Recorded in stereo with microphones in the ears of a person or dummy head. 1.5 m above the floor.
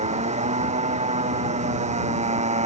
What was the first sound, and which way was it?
A motorcycle, 35° right (ahead or behind).